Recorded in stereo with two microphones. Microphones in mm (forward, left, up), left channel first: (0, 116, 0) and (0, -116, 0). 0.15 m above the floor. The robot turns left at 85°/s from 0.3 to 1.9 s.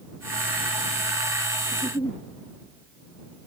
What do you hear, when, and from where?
1.7 s a giggle: 5° left (ahead or behind); by 2.2 s 20° left (ahead or behind)